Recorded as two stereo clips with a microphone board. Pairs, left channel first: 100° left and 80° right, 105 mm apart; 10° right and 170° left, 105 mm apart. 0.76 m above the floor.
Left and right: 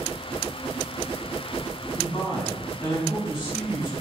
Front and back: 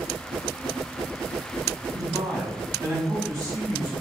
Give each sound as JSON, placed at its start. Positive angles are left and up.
{"t": 1.9, "sound": "a man speaking", "azimuth_deg": 130, "distance_m": 1.1}